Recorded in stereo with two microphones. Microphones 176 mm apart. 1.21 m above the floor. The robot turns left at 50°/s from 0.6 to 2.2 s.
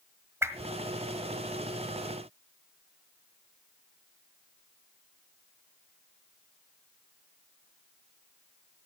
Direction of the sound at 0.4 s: 15° right (ahead or behind).